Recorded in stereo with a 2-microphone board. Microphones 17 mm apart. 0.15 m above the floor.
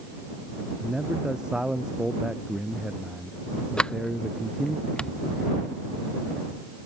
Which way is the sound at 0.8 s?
45° right (ahead or behind).